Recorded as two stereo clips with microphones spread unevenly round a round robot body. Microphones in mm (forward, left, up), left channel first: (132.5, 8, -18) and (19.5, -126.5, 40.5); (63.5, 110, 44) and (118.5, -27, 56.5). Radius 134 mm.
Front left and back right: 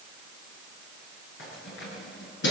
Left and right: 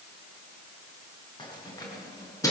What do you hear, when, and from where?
1.4 s keys jangling: 50° left, 8 m; by 2.5 s 45° left, 7.5 m